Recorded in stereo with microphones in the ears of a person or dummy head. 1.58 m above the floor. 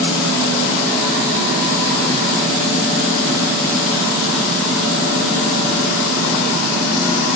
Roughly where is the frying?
No frying in this recording.